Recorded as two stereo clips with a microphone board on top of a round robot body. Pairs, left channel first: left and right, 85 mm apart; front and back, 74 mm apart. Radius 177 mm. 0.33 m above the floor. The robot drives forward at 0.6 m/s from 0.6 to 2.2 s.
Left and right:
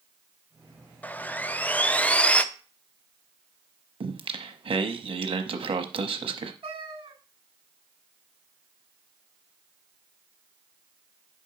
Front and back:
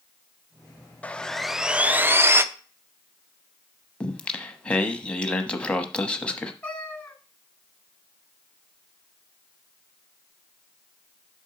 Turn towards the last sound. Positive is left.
turn(degrees=-75)